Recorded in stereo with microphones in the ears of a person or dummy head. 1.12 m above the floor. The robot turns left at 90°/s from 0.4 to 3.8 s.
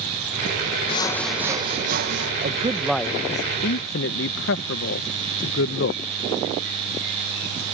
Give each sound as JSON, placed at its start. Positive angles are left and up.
{"t": 0.9, "sound": "sawing", "azimuth_deg": 35}
{"t": 2.4, "sound": "a man speaking", "side_deg": -40}